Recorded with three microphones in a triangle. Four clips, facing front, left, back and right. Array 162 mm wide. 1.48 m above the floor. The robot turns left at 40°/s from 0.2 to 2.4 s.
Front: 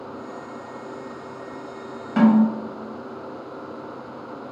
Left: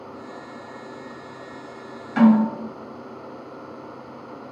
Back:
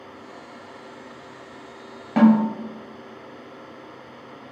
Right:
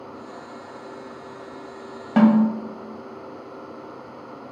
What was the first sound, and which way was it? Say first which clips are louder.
A snare drum: even, even; 110° right.